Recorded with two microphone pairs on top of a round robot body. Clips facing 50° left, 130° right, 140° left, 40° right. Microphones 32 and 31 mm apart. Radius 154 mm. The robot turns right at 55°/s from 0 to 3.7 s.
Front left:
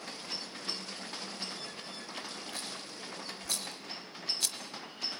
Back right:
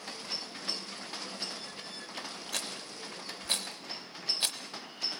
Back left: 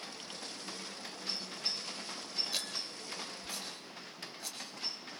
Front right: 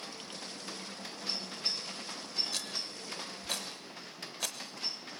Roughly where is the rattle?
Behind right.